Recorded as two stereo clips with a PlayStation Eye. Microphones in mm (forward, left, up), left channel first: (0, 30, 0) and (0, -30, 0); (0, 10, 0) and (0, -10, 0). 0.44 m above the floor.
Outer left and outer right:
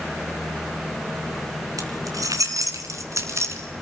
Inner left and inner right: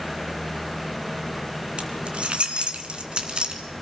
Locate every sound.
1.8 s keys jangling: 80° right, 3.5 m; by 3.6 s 50° right (ahead or behind), 3.5 m